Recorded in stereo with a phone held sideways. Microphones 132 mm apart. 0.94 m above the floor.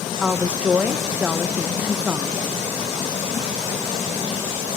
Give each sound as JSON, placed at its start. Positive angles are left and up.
{"t": 0.2, "sound": "a woman speaking", "side_deg": -10, "distance_m": 0.6}